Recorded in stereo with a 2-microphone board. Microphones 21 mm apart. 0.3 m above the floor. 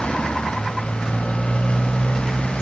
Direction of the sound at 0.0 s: 55° left (ahead or behind).